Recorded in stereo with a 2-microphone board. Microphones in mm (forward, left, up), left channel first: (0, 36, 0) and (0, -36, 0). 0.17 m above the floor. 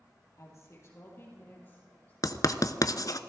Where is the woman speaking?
45° left (ahead or behind), 3.5 m; by 2.1 s 25° left (ahead or behind), 4.5 m.